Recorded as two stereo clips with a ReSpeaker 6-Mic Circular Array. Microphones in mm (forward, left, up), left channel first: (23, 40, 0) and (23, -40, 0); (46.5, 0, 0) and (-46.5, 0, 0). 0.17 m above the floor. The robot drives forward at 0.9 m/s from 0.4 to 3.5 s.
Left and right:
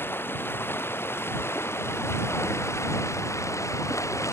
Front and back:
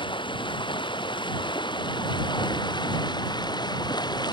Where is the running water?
25° left; by 4.3 s 40° left.